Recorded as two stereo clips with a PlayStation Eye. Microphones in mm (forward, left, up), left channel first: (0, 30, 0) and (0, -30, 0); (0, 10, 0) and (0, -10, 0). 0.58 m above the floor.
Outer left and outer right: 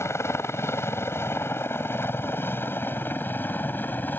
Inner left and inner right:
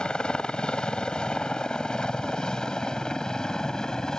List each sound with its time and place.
0.0 s a helicopter: 50° left (ahead or behind); by 4.2 s 30° left (ahead or behind)